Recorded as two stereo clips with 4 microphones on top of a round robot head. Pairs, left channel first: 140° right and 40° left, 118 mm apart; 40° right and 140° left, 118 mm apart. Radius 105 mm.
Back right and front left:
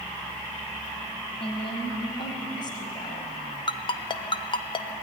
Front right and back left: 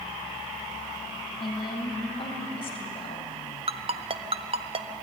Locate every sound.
1.4 s a woman speaking: 95° right, 4 m; by 3.3 s 80° right, 3 m
3.7 s a ringtone: 175° left, 1.0 m